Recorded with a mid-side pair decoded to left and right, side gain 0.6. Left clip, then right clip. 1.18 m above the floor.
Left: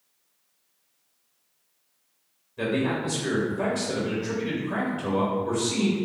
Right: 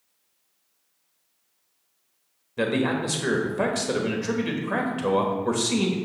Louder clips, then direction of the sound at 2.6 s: Right 2 dB; 50° right.